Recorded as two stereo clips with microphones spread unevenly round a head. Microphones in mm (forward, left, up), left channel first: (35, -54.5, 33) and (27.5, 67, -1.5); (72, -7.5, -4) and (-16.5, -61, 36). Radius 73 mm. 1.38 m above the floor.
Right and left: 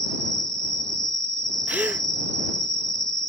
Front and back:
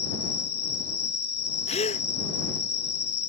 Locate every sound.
0.0 s an insect: 30° left
1.7 s a gasp: 15° left